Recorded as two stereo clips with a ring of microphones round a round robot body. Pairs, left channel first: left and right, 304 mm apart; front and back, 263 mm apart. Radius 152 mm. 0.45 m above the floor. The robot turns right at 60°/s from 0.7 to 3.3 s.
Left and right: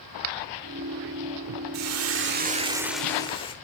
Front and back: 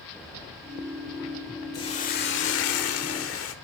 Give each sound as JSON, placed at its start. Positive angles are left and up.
{"t": 1.7, "sound": "a hiss", "azimuth_deg": -75, "distance_m": 1.2}